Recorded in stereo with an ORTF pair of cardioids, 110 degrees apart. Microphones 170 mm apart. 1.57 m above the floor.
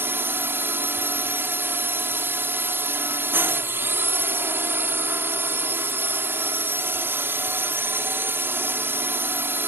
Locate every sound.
0.0 s a drone: 10° right